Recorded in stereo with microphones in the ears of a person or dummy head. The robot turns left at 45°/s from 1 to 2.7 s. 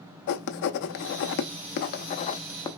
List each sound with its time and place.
0.3 s writing: 60° left (ahead or behind), 0.6 m; by 2.7 s 20° left (ahead or behind), 0.6 m